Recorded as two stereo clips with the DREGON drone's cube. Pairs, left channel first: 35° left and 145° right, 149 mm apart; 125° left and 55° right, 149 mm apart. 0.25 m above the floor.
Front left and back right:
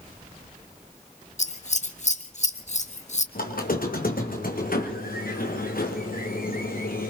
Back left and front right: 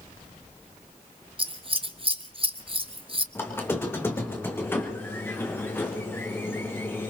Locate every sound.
1.4 s scissors: 5° right, 0.7 m
3.4 s a squeak: 50° left, 1.9 m